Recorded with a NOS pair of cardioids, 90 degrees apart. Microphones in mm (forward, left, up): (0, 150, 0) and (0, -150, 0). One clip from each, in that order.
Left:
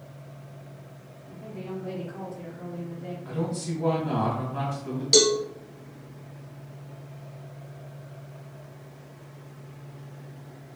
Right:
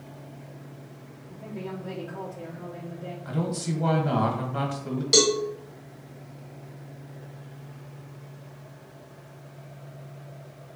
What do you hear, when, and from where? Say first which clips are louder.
1.3 s a woman speaking: right 1 dB; 15° right, 1.0 m
3.2 s a man speaking: right 1 dB; 35° right, 1.8 m
5.1 s a cowbell: left 1 dB; straight ahead, 1.2 m